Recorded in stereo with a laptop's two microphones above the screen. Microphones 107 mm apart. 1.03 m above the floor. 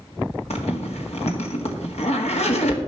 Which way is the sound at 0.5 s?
80° left.